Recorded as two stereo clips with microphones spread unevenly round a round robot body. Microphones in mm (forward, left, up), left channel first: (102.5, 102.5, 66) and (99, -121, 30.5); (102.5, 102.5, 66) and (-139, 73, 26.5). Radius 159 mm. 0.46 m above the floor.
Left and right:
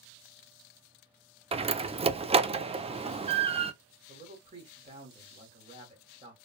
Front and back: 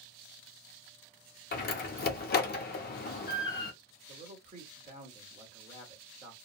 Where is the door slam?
45° right, 0.5 m.